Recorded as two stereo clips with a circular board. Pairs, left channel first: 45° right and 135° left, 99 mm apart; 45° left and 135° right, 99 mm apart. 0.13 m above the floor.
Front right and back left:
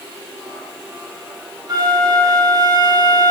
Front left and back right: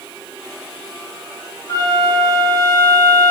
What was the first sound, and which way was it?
A flute, 95° left.